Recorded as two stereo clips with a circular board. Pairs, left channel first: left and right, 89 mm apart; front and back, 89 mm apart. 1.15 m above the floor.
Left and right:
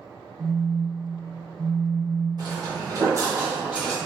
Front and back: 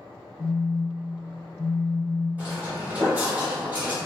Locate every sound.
0.4 s a phone buzzing: 15° right, 0.6 m
2.4 s footsteps: 110° right, 1.9 m; by 4.0 s 170° right, 1.2 m